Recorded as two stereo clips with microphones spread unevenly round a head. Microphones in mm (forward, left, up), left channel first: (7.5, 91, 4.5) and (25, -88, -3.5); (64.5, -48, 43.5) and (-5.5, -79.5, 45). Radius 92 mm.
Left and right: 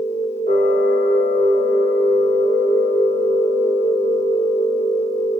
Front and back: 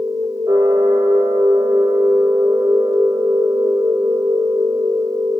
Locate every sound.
0.0 s a machine running: 150° left, 0.7 m